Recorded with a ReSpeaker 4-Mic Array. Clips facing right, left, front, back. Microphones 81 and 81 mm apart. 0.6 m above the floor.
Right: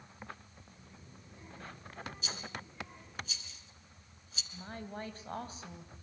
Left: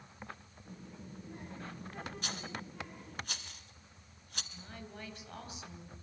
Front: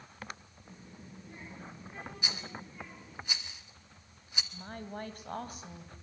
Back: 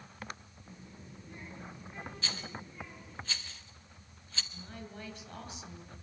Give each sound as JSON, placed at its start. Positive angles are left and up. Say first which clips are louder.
{"t": 0.7, "sound": "a child speaking", "louder": "left 11 dB, front 1 dB", "azimuth_deg": 70, "distance_m": 9.0}
{"t": 2.2, "sound": "a rattle", "louder": "left 1 dB, even", "azimuth_deg": 75, "distance_m": 1.3}
{"t": 4.5, "sound": "a woman speaking", "louder": "right 8 dB, front 4 dB", "azimuth_deg": -40, "distance_m": 3.0}